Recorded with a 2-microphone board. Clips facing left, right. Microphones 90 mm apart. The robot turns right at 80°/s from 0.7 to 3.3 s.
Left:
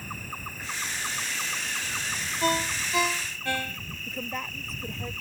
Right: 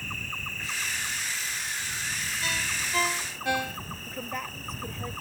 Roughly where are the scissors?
I don't hear scissors.